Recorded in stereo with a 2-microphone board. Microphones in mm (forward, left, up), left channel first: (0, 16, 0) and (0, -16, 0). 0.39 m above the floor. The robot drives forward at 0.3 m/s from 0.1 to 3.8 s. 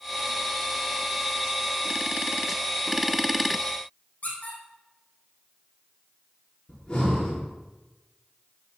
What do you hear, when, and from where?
4.2 s a squeak: 50° left (ahead or behind), 3.5 m
6.7 s breathing: 35° left (ahead or behind), 6 m